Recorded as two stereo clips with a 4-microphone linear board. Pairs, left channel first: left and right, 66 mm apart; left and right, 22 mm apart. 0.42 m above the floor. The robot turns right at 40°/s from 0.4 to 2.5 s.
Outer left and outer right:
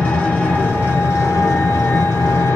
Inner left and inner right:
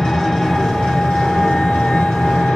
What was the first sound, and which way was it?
An engine running, 25° left.